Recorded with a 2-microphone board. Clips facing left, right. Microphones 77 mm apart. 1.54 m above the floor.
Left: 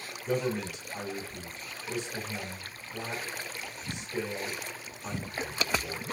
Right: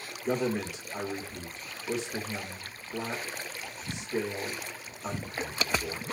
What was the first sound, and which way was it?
A man speaking, 85° right.